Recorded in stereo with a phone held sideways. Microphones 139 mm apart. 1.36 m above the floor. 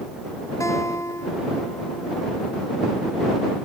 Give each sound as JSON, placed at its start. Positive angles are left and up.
{"t": 0.6, "sound": "a guitar", "side_deg": 25}